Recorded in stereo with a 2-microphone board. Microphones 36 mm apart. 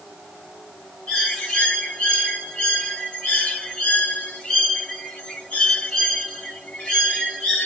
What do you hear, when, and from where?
1.1 s a bird: 30° left (ahead or behind), 1.6 m